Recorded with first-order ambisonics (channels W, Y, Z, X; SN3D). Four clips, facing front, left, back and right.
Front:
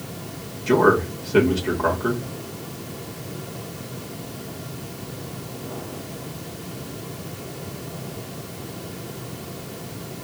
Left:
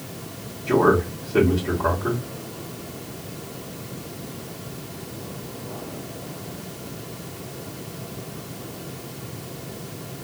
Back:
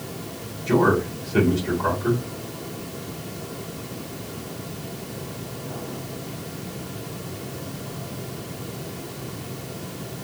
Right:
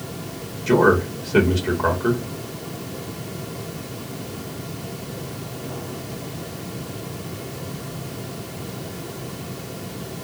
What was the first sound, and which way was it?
A man speaking, 55° right.